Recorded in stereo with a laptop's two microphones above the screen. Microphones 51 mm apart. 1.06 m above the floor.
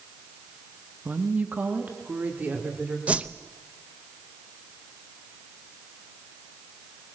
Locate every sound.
1.1 s a woman speaking: 35° right (ahead or behind), 1.3 m
3.1 s a whoosh: 25° right (ahead or behind), 0.6 m